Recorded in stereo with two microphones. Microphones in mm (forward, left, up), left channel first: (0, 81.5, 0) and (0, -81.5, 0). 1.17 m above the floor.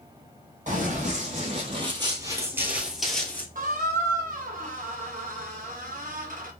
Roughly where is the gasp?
No gasp in this recording.